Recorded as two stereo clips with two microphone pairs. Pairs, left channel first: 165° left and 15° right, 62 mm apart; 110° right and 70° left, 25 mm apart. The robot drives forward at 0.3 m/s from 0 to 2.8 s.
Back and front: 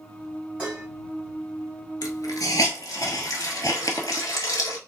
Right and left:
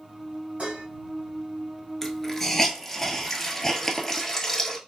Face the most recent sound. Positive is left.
turn(degrees=175)